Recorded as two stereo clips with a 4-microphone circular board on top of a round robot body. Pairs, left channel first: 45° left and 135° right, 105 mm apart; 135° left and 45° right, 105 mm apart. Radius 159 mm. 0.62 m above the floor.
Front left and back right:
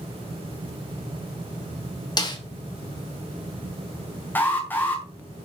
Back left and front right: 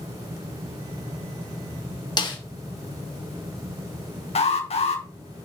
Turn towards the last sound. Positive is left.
turn(degrees=115)